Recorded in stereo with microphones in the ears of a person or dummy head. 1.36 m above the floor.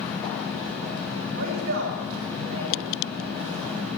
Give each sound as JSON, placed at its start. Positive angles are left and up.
{"t": 0.0, "sound": "a fan", "side_deg": 5, "distance_m": 5.0}
{"t": 1.4, "sound": "a man speaking", "side_deg": -50, "distance_m": 4.5}